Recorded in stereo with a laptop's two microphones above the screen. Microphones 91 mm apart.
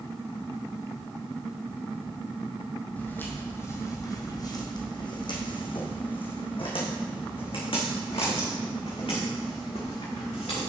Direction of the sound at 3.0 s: 15° left (ahead or behind).